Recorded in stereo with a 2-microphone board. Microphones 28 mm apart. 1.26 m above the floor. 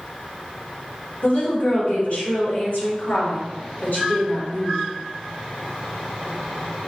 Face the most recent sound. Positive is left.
turn(degrees=80)